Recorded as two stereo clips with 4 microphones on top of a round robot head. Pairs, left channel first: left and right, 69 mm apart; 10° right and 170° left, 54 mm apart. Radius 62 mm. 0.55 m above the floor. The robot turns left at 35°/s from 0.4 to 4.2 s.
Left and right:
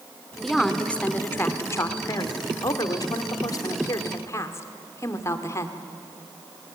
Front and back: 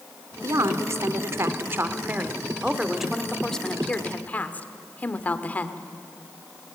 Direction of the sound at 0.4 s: 175° left.